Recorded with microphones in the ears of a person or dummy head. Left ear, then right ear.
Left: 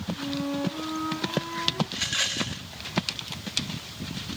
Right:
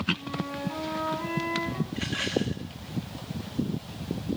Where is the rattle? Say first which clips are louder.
Left 3 dB; 15° left (ahead or behind), 0.9 m.